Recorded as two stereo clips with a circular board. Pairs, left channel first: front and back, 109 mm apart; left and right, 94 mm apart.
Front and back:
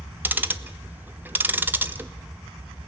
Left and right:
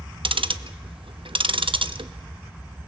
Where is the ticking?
110° right, 0.9 m.